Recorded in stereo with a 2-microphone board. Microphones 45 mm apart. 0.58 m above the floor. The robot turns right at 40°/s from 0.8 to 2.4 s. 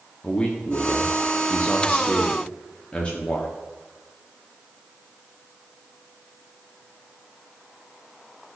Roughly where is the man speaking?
Ahead left.